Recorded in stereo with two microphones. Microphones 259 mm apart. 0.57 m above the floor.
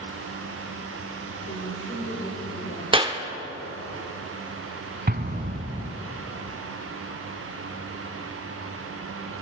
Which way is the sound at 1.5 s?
40° left (ahead or behind).